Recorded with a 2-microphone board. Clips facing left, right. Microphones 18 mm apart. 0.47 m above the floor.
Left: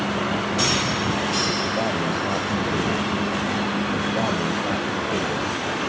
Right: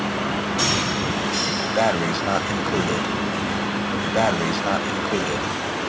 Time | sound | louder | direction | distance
1.8 | breathing | right 3 dB | 60° right (ahead or behind) | ?